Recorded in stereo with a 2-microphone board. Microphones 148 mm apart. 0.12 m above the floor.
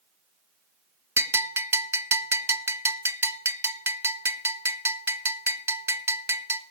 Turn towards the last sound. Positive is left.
turn(degrees=-20)  # may be behind; listen again after turning